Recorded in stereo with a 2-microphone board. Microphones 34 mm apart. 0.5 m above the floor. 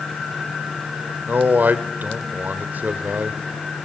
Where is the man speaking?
55° right (ahead or behind), 1.5 m.